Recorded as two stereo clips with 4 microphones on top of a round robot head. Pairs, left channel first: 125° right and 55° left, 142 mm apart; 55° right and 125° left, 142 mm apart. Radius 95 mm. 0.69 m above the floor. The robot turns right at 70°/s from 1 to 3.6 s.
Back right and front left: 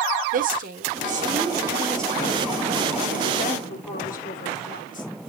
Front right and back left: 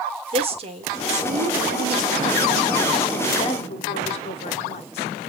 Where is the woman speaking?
80° left, 2 m; by 5.1 s 100° right, 2 m.